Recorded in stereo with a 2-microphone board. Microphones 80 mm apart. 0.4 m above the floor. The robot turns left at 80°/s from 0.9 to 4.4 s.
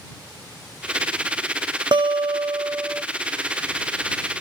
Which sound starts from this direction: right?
A guitar, at 1.9 s.